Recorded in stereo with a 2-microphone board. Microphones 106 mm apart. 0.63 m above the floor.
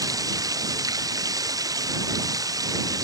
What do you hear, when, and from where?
0.0 s running water: 35° right (ahead or behind)